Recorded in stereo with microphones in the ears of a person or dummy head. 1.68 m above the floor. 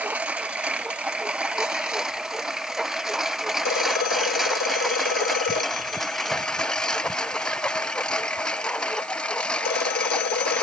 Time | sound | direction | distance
0.0 | a lawn mower | 5° right (ahead or behind) | ?
3.6 | a phone ringing | 50° left (ahead or behind) | ?